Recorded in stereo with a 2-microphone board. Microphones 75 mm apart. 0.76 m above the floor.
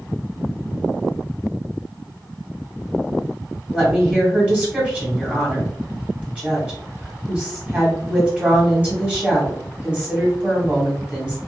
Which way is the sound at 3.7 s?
15° right (ahead or behind).